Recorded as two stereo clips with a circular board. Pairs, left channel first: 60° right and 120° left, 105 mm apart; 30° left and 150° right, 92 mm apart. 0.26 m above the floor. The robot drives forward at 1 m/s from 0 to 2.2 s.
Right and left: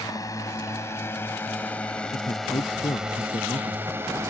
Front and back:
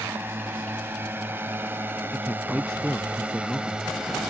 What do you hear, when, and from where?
0.0 s a drone: 95° right; by 4.3 s 130° left
2.1 s a man speaking: 50° right